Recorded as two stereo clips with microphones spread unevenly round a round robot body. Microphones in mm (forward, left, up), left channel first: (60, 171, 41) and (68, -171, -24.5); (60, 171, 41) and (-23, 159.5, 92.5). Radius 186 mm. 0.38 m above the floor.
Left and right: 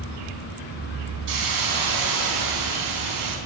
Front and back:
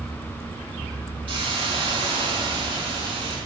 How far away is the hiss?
About 3 m.